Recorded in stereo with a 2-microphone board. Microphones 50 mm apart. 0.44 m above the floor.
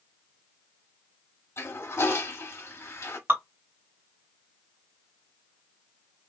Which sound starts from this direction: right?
Dripping, at 3.3 s.